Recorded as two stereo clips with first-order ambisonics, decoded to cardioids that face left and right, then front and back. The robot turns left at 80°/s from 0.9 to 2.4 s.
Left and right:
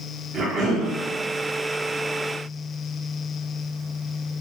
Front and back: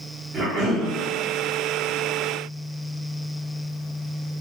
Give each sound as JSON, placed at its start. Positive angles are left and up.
{"t": 0.3, "sound": "a cough", "azimuth_deg": -120, "distance_m": 1.7}